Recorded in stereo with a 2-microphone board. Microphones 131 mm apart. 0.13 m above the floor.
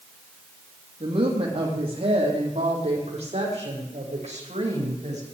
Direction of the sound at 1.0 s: 40° right (ahead or behind).